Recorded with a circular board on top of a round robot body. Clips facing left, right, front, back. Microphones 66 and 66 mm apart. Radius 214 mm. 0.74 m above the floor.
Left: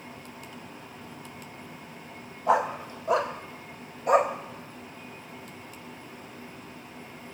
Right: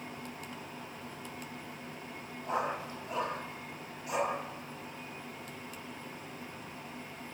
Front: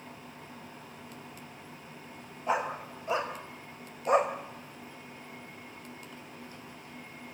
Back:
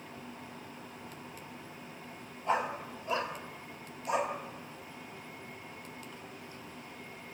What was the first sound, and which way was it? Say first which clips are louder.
A dog barking: left 9 dB, front 1 dB; 80° left.